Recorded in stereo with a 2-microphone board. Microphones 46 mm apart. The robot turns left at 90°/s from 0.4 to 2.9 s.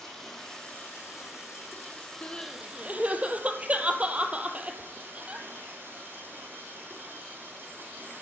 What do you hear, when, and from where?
0.0 s running water: 170° left, 4 m; by 8.2 s 55° right, 4 m
2.2 s crying: 35° left (ahead or behind), 1.1 m; by 5.5 s 30° right (ahead or behind), 1.1 m